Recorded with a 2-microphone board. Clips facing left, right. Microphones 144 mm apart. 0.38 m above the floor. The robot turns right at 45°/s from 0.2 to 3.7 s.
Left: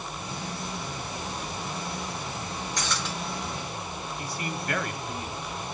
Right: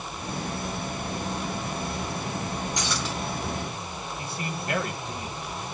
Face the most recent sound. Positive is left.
turn(degrees=-25)  # may be behind; listen again after turning